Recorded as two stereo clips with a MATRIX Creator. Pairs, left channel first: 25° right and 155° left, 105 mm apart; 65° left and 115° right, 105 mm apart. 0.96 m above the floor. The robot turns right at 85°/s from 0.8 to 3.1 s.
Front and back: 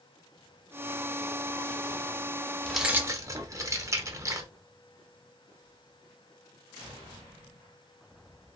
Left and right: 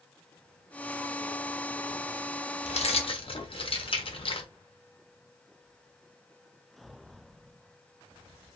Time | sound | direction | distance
2.6 | keys jangling | 60° left | 0.5 m